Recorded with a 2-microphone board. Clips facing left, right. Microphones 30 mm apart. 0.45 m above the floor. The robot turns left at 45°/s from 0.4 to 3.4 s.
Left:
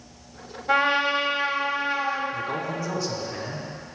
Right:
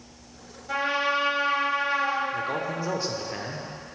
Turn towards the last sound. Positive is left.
turn(degrees=-30)  # may be behind; listen again after turning